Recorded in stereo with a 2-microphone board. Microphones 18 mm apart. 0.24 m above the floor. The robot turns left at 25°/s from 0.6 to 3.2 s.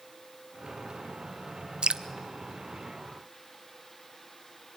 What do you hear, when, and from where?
1.8 s dripping: 60° right (ahead or behind), 0.8 m; by 2.0 s 65° right (ahead or behind), 0.8 m